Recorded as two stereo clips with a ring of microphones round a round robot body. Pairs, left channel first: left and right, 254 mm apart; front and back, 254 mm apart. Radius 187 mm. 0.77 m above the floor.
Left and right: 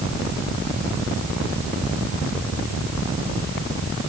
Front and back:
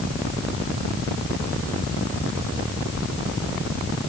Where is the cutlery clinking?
No cutlery clinking in this recording.